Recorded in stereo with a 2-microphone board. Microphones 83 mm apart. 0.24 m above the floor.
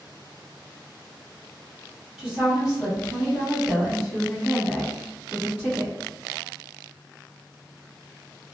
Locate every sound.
2.2 s a woman speaking: 10° right (ahead or behind), 1.2 m; by 6.0 s centre (ahead or behind), 1.7 m